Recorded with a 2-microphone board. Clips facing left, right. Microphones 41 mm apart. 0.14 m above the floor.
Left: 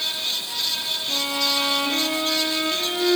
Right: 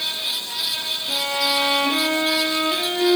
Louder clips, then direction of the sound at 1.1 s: Right 3 dB; 20° right (ahead or behind).